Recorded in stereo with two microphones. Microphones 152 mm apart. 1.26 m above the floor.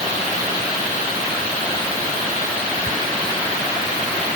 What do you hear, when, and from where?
Only background noise.